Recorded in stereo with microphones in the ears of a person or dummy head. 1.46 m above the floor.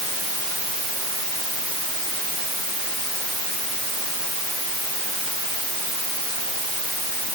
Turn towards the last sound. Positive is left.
No sound to turn to.